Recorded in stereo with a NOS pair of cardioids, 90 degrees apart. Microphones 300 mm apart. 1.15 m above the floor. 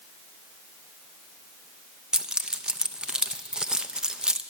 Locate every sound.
2.1 s keys jangling: 5° right, 0.6 m